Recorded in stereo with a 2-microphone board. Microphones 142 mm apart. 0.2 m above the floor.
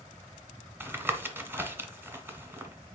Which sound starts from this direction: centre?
Tapping, at 0.8 s.